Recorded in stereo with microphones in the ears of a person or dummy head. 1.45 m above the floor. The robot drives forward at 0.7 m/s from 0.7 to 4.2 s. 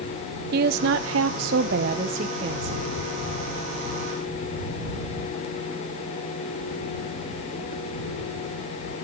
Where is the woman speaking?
60° right (ahead or behind), 0.7 m; by 2.9 s 25° right (ahead or behind), 1.4 m.